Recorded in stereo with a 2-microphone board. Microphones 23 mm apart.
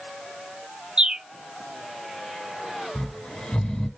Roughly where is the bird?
Right.